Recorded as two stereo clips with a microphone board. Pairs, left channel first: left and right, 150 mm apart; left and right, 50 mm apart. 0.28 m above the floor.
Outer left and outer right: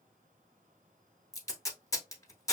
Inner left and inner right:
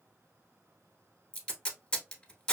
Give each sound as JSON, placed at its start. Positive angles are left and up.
{"t": 1.3, "sound": "tape being pulled", "side_deg": 20, "distance_m": 0.9}